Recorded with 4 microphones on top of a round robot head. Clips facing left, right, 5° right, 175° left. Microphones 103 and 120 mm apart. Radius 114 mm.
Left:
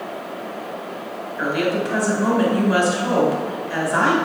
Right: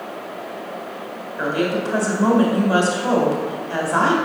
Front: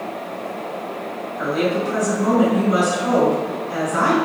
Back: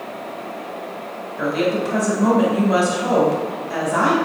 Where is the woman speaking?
150° right, 2.5 m.